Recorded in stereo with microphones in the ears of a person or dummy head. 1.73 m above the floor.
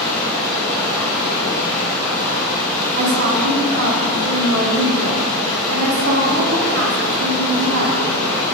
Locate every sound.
0.0 s running water: 10° left (ahead or behind), 1.6 m
2.9 s a woman speaking: 60° right (ahead or behind), 1.1 m